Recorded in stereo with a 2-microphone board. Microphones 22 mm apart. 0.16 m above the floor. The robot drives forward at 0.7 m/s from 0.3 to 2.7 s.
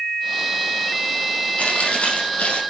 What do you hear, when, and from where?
1.6 s chewing: 70° left (ahead or behind), 4.5 m; by 2.6 s 65° left (ahead or behind), 5 m